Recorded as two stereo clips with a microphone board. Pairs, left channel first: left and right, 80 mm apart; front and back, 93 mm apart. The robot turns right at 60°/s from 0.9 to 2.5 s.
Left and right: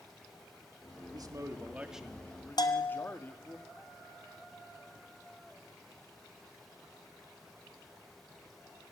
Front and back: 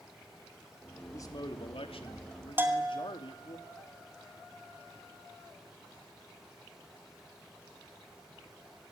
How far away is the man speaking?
About 2.5 m.